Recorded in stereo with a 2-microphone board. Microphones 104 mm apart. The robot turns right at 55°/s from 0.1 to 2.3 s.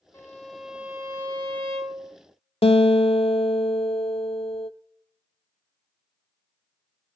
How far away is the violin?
About 2 m.